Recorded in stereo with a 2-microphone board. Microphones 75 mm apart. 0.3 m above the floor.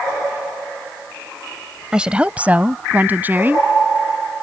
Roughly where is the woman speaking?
Centre.